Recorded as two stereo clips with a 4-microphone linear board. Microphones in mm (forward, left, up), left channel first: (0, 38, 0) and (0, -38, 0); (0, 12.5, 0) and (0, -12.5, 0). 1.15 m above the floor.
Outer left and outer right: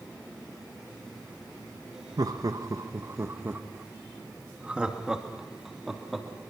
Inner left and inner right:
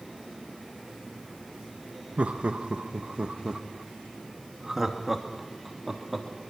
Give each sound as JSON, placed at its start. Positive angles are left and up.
{"t": 2.2, "sound": "laughter", "side_deg": -55, "distance_m": 1.5}